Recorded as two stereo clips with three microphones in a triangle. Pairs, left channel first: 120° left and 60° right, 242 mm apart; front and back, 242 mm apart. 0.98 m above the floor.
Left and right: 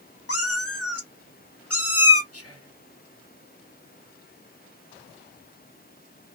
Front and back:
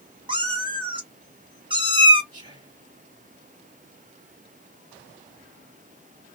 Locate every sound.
0.3 s a cat meowing: 110° left, 1.0 m
2.3 s whispering: 105° left, 1.4 m